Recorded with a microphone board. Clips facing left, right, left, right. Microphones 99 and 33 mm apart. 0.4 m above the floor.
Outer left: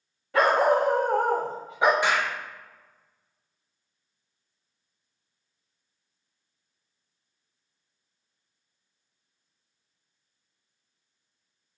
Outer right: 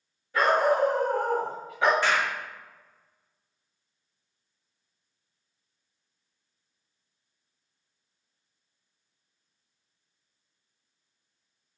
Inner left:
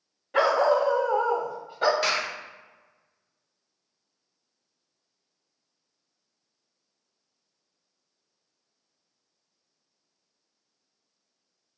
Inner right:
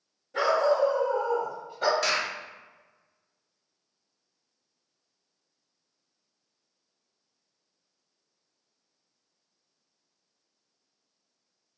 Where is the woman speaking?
No woman speaking in this recording.